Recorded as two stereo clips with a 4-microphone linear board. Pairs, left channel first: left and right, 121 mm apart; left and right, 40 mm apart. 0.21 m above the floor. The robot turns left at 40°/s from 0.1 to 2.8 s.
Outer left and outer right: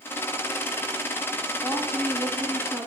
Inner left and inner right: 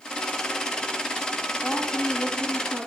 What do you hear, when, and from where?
1.6 s a woman speaking: 35° left, 1.8 m; by 2.9 s 15° right, 1.8 m